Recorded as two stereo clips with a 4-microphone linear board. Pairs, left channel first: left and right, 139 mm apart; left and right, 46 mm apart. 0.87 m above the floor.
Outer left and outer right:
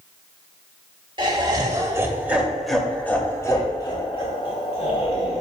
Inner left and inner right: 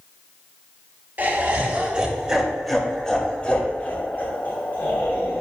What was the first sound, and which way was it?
Laughter, 35° right (ahead or behind).